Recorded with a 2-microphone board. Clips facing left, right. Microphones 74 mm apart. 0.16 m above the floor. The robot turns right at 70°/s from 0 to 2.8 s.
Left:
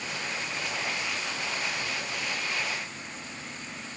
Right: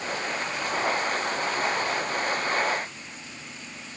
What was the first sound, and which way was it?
Only background noise.